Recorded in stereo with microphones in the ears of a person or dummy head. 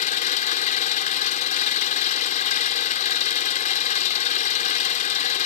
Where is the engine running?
45° left (ahead or behind).